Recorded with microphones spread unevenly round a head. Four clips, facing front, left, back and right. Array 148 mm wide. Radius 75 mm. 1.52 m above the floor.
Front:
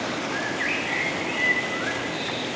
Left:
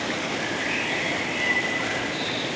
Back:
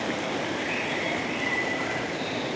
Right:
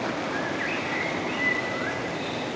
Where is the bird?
20° right, 1.4 m.